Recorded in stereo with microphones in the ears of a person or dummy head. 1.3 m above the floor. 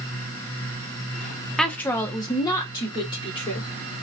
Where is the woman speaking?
Centre (ahead or behind), 0.5 m; by 3.7 s 20° left (ahead or behind), 1.5 m.